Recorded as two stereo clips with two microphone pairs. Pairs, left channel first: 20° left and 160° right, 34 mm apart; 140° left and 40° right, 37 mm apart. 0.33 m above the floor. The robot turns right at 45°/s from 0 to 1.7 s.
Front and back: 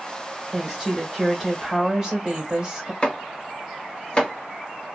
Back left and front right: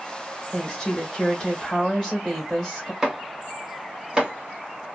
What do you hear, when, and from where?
0.5 s a woman speaking: 145° left, 1.4 m; by 2.9 s 160° right, 1.4 m
3.0 s chopping: 10° left, 1.7 m